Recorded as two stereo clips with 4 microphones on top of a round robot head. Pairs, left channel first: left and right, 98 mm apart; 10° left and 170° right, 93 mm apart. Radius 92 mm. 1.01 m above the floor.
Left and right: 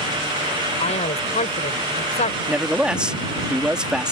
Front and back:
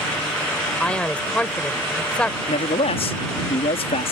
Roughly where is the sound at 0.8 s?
Left.